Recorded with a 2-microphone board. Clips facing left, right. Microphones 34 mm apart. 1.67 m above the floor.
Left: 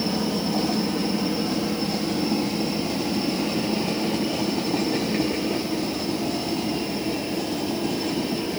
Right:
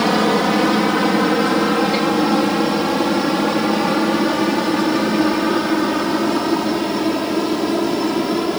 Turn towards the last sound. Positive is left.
turn(degrees=-70)  # may be behind; listen again after turning